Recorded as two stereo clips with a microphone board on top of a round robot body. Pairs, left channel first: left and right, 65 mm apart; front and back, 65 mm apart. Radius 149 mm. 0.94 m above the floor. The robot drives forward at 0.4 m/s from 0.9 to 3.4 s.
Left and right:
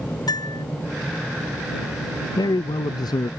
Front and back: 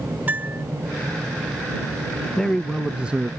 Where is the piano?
115° left.